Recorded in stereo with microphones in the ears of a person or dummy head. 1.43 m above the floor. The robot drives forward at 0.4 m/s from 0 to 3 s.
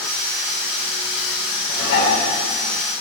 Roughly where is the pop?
I don't hear a pop.